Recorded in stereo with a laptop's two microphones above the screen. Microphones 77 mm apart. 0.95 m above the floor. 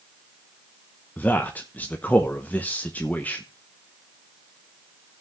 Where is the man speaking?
20° left (ahead or behind), 0.7 m.